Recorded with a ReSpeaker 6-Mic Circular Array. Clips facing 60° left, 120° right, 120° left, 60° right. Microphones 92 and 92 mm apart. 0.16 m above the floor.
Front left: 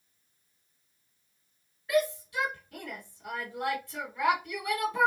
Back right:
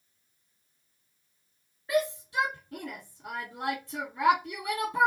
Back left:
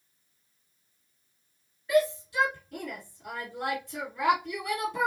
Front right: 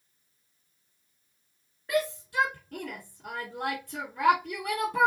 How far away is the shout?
About 2 m.